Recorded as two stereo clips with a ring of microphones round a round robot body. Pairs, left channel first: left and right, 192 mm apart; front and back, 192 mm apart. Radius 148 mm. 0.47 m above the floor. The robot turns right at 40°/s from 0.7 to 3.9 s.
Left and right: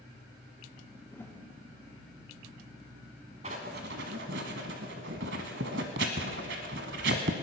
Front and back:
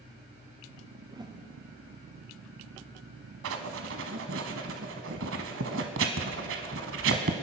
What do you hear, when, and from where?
1.1 s a whoosh: 150° left, 1.4 m; by 1.4 s 160° left, 1.4 m
3.4 s writing: 160° right, 0.9 m; by 7.3 s 140° right, 0.9 m